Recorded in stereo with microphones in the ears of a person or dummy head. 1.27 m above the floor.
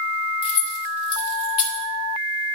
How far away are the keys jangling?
About 2 m.